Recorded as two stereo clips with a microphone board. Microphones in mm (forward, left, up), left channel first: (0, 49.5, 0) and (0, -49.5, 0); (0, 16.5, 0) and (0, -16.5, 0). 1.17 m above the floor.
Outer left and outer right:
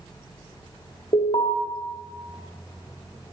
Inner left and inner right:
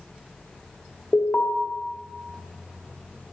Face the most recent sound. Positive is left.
turn(degrees=60)  # may be behind; listen again after turning